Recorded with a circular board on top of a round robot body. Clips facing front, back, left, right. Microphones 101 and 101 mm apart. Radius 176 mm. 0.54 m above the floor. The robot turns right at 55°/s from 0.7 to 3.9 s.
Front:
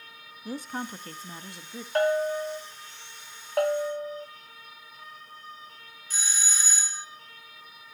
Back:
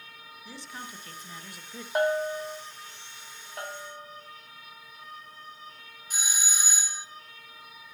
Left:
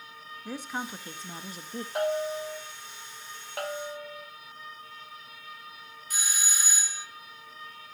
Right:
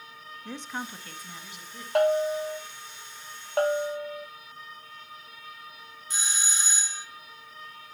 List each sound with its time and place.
0.5 s a woman speaking: 10° left, 1.1 m; by 1.9 s 75° left, 1.1 m
1.9 s a bell: 105° right, 2.5 m; by 2.6 s 65° right, 2.5 m
3.6 s a bell: 30° right, 0.7 m; by 4.3 s 10° right, 0.7 m
6.1 s a doorbell: 120° right, 1.3 m